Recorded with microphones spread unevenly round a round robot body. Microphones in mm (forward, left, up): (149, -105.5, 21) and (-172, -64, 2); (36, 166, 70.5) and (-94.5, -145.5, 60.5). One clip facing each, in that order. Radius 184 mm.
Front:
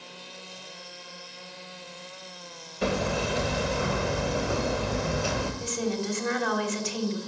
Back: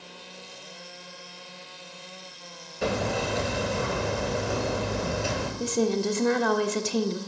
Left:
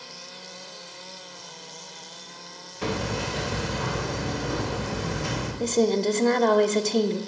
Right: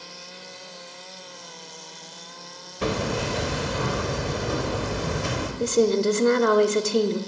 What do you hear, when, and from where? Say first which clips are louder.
2.8 s hammering: even, right 3 dB; 95° right, 2.5 m
5.6 s a woman speaking: back 8 dB, right 2 dB; 175° left, 1.0 m